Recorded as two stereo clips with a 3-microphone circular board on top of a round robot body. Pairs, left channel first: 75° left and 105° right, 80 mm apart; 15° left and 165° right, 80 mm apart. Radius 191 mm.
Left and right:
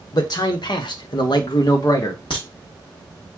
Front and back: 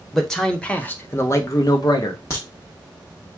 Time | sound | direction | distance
0.1 | a man speaking | 105° left | 1.3 m
2.3 | a crack | 65° left | 0.8 m